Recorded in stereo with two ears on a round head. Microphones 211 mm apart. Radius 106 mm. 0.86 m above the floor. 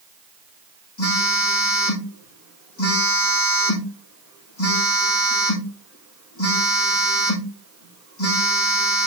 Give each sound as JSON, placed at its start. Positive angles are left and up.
{"t": 1.0, "sound": "a phone buzzing", "side_deg": 60, "distance_m": 5.5}